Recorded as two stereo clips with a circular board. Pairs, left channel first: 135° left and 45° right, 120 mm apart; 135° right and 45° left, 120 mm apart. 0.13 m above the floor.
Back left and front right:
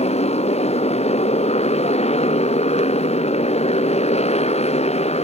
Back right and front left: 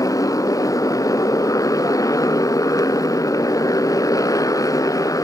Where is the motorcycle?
165° left.